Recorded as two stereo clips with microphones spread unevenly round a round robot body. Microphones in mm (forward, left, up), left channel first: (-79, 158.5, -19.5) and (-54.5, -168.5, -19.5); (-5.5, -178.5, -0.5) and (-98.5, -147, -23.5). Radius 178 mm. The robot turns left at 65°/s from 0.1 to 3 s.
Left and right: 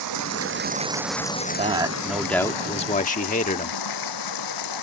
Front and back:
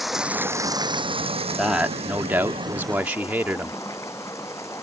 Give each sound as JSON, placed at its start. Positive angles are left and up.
{"t": 0.0, "sound": "running water", "azimuth_deg": -110}
{"t": 1.6, "sound": "a man speaking", "azimuth_deg": -135}